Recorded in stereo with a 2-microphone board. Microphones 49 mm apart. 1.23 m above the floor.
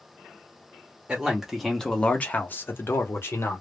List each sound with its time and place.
1.1 s a man speaking: 15° right (ahead or behind), 0.7 m; by 3.6 s 60° left (ahead or behind), 1.0 m